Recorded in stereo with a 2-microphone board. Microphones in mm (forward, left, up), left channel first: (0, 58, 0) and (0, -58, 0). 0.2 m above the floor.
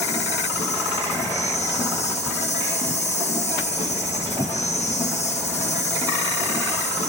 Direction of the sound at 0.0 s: 80° left.